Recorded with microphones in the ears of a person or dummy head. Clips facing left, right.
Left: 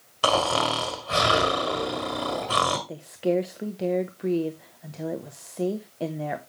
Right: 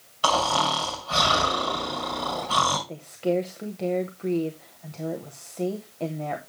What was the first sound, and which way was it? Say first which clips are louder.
Snoring: left 1 dB; 40° left (ahead or behind).